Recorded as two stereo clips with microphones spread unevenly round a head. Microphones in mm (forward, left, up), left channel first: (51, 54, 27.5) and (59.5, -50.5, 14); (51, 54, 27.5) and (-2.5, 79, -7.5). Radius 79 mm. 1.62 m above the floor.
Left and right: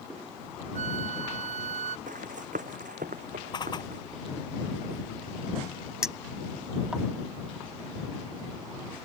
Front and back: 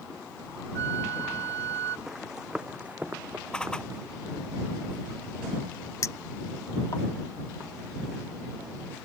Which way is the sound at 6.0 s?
Straight ahead.